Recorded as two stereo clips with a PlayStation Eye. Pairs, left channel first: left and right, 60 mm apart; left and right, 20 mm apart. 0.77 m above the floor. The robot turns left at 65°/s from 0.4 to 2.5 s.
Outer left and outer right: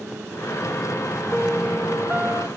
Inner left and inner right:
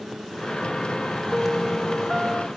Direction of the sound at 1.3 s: Straight ahead.